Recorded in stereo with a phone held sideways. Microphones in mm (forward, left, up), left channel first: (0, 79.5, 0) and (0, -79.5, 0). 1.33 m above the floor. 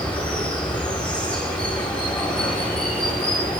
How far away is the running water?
About 8 m.